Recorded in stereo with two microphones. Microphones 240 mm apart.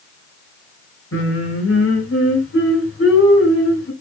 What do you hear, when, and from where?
1.1 s singing: 60° left (ahead or behind), 2.5 m